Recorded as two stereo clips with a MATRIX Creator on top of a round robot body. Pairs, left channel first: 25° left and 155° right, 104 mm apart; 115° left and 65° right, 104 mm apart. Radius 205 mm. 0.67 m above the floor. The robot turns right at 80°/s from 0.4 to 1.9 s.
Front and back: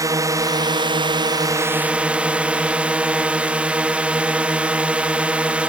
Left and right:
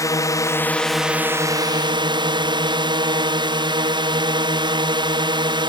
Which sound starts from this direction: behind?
A drone, at 0.0 s.